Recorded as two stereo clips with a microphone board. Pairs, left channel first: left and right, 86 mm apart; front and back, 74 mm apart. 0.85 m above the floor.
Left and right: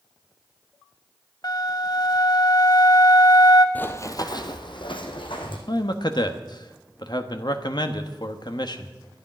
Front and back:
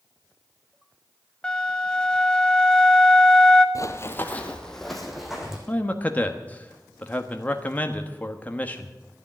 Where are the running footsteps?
25° left, 1.3 m; by 5.6 s 95° left, 3 m.